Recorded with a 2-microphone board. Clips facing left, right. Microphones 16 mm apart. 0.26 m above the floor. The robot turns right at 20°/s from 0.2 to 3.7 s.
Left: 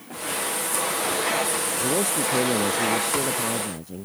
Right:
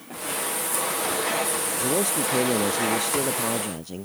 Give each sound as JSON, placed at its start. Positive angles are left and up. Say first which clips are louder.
{"t": 1.8, "sound": "a man speaking", "louder": "even", "azimuth_deg": -165}